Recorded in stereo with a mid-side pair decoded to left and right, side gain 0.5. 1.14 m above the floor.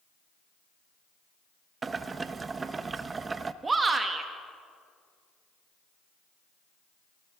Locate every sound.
1.8 s boiling: 30° right, 0.8 m
3.6 s a shout: 30° right, 2 m